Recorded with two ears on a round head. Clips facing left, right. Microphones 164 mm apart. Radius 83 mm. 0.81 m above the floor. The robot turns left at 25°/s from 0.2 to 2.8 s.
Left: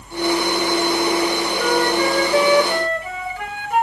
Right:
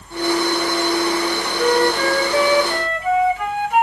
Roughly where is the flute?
Behind.